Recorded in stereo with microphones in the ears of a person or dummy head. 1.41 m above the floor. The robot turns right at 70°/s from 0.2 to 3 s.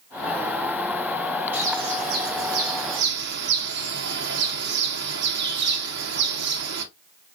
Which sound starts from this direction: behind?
A bird, at 1.5 s.